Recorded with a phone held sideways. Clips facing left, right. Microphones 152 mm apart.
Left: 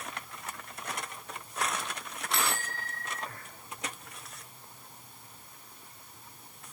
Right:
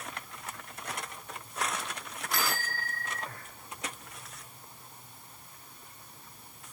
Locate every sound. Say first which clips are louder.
2.3 s a bicycle bell: even; 25° left (ahead or behind)